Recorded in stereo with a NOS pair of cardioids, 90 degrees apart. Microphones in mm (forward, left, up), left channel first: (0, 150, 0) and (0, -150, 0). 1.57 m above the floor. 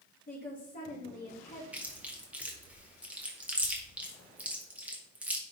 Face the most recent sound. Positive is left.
turn(degrees=-5)